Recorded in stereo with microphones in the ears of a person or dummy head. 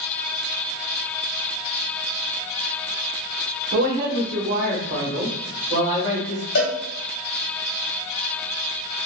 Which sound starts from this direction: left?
A cowbell, at 6.5 s.